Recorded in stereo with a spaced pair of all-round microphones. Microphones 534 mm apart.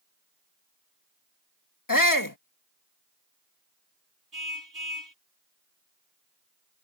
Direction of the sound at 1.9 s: 35° left (ahead or behind).